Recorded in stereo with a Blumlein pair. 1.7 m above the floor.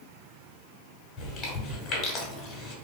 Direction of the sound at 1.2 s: 25° left.